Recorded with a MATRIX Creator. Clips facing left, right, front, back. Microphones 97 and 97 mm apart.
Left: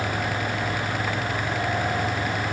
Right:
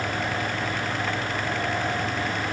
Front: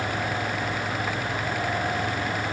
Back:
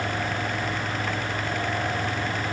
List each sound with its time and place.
Only background noise.